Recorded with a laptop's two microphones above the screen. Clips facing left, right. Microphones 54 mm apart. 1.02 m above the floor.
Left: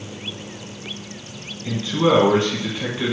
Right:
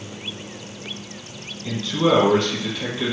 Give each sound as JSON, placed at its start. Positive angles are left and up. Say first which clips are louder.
{"t": 1.6, "sound": "a man speaking", "louder": "left 1 dB", "side_deg": 20, "distance_m": 1.1}